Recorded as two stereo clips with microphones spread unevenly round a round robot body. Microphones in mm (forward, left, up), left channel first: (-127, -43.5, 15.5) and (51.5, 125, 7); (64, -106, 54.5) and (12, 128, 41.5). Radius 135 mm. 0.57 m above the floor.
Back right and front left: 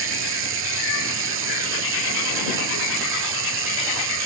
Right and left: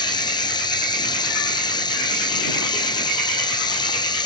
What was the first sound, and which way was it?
Running water, 5° right.